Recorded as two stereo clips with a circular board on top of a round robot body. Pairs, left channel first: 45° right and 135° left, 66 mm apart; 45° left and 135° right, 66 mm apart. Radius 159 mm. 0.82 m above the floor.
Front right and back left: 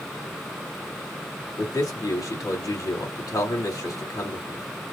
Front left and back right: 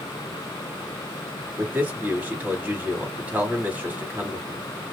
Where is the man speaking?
70° right, 2.0 m.